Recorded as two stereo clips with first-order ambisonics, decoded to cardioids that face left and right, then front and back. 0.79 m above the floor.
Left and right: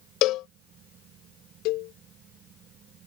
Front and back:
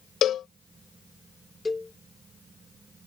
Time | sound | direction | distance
0.2 | a cowbell | 55° left | ?
1.6 | a cowbell | 80° left | ?